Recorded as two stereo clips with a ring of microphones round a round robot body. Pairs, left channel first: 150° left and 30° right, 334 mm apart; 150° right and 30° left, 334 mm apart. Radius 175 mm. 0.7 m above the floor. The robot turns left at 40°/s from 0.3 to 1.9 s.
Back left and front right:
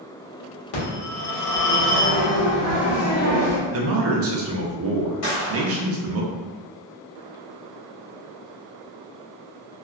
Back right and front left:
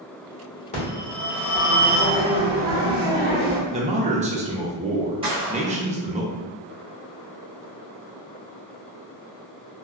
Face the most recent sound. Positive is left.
turn(degrees=105)